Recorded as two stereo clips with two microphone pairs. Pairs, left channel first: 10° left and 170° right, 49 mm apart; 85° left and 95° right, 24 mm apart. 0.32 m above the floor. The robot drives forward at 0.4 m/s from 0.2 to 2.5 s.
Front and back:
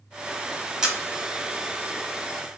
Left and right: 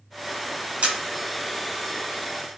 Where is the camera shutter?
95° right, 1.1 m; by 1.0 s 100° right, 1.1 m.